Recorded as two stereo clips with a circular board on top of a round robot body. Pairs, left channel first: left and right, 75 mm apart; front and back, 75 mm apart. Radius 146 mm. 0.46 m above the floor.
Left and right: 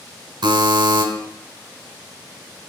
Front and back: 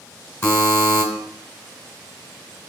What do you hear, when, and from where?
0.4 s a buzzer: 60° right, 2.5 m